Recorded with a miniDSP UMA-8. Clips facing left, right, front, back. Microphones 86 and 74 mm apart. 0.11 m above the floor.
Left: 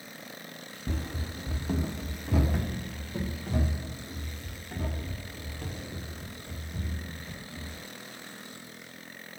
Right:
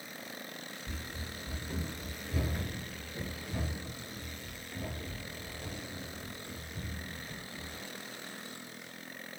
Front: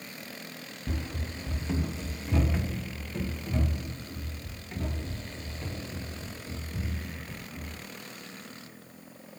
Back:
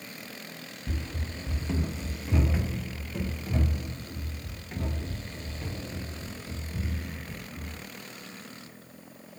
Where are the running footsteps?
70° left, 0.8 m; by 7.8 s 105° left, 8 m.